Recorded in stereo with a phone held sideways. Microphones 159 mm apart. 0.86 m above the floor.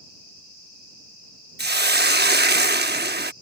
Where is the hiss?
75° right (ahead or behind).